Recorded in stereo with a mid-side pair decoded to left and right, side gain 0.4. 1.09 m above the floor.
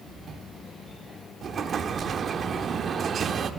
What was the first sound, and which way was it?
An explosion, 55° right.